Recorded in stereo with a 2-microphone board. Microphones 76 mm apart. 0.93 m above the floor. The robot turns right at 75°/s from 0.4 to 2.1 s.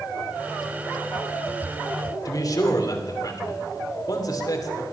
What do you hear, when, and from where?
2.2 s a man speaking: 50° left (ahead or behind), 3 m